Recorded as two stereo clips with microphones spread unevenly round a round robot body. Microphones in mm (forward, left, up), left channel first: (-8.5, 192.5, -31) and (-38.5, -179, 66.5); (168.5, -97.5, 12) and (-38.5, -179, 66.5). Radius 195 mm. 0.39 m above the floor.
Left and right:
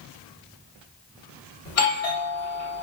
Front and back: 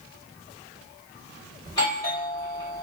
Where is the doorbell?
80° left, 2.5 m.